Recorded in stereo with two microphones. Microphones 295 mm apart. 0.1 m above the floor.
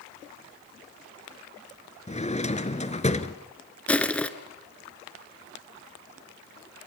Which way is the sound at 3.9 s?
5° left (ahead or behind).